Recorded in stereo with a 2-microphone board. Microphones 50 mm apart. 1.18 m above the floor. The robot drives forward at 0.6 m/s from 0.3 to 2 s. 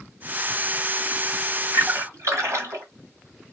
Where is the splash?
70° right (ahead or behind), 1.8 m.